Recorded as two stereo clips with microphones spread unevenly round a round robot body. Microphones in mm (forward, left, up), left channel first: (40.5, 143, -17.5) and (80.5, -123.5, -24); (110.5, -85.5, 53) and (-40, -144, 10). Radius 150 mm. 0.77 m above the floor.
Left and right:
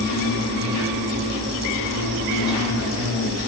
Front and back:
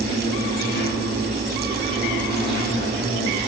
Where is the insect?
70° left, 2.5 m.